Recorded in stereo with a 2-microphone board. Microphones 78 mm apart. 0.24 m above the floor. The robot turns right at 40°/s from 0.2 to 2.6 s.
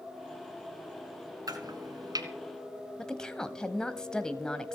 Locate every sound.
1.5 s chopping: 60° right (ahead or behind), 2.5 m
3.0 s a woman speaking: 10° left (ahead or behind), 1.0 m